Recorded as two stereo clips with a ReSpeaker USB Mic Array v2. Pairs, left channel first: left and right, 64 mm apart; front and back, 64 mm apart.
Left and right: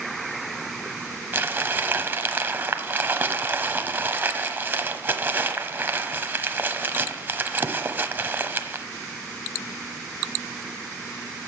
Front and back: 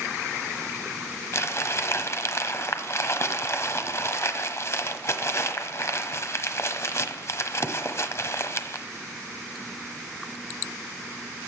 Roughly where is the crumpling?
Ahead right.